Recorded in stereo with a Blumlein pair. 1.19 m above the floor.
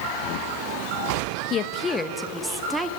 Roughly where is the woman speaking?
Ahead left.